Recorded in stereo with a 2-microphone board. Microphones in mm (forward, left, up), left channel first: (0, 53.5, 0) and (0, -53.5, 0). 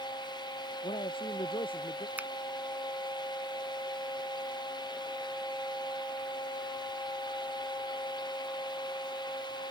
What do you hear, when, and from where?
0.8 s a man speaking: 55° left (ahead or behind)
2.2 s a finger snap: 15° right (ahead or behind)